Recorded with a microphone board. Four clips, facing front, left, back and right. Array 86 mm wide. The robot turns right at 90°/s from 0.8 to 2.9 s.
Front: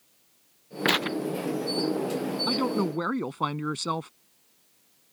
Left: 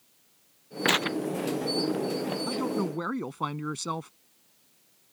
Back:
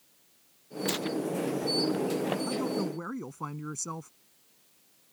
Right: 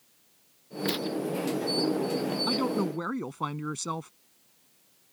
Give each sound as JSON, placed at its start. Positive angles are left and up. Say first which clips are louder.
{"t": 0.8, "sound": "tearing paper", "louder": "left 3 dB, front 4 dB", "azimuth_deg": 40}
{"t": 2.5, "sound": "a woman speaking", "louder": "right 2 dB, front 4 dB", "azimuth_deg": -30}